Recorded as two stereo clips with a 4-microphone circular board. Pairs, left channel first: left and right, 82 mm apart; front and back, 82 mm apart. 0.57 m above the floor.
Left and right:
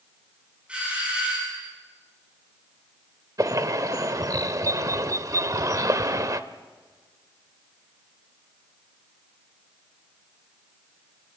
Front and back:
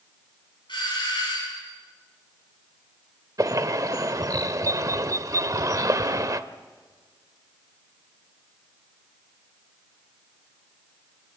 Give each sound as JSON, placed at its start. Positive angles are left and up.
{"t": 0.7, "sound": "a doorbell", "azimuth_deg": -15, "distance_m": 7.0}
{"t": 3.4, "sound": "a bird", "azimuth_deg": -135, "distance_m": 0.8}